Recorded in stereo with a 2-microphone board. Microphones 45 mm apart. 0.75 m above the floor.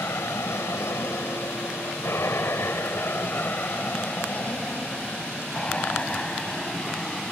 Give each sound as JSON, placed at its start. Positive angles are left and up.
{"t": 0.0, "sound": "an aircraft", "side_deg": 70}